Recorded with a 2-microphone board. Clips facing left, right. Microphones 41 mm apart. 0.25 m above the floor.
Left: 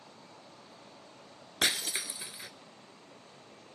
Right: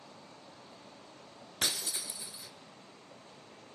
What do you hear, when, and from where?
1.6 s breaking glass: 65° left (ahead or behind), 1.0 m